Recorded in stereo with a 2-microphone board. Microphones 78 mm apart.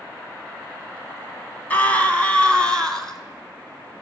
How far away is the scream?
About 1.3 m.